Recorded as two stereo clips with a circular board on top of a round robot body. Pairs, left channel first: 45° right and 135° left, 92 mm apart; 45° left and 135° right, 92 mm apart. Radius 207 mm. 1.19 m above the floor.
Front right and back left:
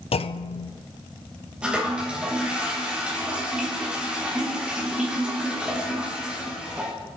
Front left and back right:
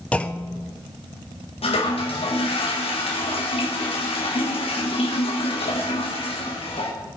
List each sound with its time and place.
0.1 s a clunk: 35° right, 0.7 m
1.6 s a toilet flushing: 55° left, 3.5 m